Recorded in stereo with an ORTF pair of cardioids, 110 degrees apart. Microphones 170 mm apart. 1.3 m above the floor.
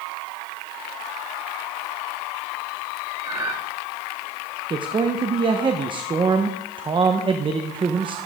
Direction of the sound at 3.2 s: 25° right.